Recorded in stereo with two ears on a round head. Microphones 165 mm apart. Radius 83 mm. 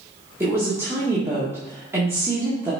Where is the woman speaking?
15° right (ahead or behind), 1.9 m.